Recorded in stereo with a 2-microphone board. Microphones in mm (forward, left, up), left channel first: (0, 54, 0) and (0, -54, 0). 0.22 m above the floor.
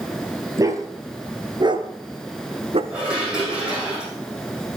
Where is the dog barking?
30° right (ahead or behind), 2 m; by 2.8 s 65° right (ahead or behind), 1.1 m.